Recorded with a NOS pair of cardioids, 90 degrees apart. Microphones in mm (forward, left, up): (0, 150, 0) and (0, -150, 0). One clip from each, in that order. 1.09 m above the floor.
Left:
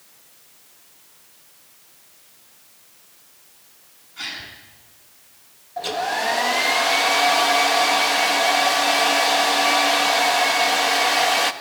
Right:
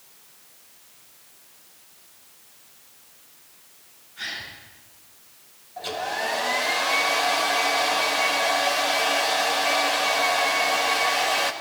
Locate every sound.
4.2 s a gasp: 50° left, 7.5 m
5.8 s a hair dryer: 35° left, 1.6 m